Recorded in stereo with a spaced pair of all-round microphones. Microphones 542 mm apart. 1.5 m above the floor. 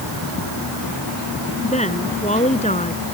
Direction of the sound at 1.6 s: 10° left (ahead or behind).